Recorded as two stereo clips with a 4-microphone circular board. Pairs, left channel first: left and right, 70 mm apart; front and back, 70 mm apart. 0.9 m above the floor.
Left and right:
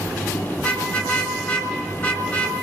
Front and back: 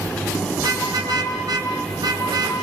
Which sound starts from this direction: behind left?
A car horn, at 0.6 s.